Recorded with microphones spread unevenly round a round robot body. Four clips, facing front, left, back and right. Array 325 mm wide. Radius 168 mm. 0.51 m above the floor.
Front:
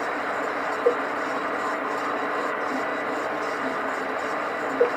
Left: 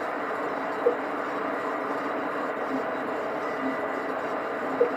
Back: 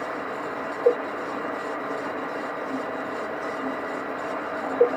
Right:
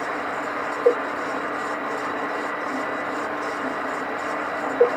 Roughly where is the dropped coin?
I don't hear a dropped coin.